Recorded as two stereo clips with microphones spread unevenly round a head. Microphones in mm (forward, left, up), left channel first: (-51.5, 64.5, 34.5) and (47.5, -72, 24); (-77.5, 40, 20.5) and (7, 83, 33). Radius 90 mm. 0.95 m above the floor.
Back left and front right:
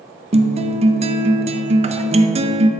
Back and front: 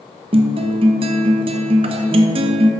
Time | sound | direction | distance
0.3 | a guitar | 5° right | 0.6 m